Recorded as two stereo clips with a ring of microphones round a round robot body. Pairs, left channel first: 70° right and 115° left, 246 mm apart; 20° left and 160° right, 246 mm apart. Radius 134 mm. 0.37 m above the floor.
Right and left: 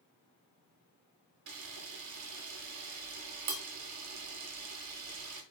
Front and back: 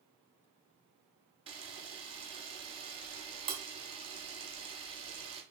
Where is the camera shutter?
135° left, 0.7 m.